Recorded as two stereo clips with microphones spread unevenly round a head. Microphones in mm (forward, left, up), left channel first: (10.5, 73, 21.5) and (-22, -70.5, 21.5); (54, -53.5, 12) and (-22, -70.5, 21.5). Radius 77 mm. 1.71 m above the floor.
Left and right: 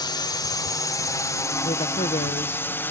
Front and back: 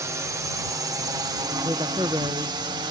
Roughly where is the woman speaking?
Behind left.